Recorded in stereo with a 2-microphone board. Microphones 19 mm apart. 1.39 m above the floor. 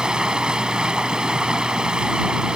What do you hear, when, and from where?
0.0 s running water: 45° right (ahead or behind)